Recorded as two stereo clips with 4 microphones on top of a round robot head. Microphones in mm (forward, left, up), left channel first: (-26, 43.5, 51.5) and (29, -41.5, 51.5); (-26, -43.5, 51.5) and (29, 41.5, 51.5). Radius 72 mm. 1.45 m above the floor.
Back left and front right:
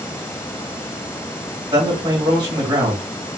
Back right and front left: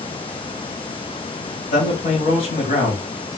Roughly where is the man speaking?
Right.